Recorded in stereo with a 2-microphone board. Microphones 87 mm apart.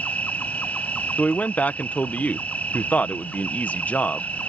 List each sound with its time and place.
0.0 s an insect: 15° left (ahead or behind)
1.2 s a man speaking: 20° left (ahead or behind)